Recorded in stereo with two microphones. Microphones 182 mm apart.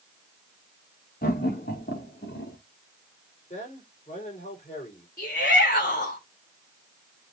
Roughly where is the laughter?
Left.